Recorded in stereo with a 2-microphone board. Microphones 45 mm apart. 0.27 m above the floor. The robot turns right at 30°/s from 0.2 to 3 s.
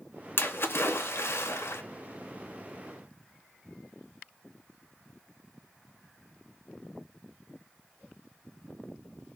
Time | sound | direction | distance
0.4 | a splash | 55° left | 0.7 m